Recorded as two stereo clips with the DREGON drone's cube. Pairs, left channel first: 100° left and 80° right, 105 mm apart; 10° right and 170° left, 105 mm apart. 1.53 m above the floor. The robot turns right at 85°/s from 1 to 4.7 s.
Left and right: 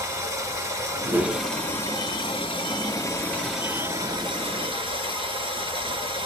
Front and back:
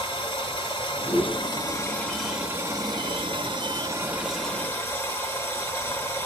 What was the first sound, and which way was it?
Running water, 25° right.